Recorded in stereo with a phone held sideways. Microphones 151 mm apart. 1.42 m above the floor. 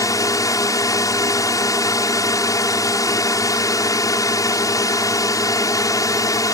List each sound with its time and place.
0.0 s a drone: 20° left (ahead or behind)